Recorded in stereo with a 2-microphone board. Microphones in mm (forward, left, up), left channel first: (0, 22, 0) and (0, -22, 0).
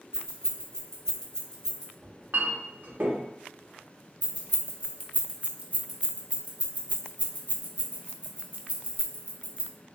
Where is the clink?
50° right (ahead or behind), 0.7 m.